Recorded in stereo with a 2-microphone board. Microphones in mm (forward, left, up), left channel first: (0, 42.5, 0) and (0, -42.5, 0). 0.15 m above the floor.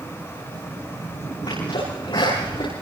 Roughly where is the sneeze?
Left.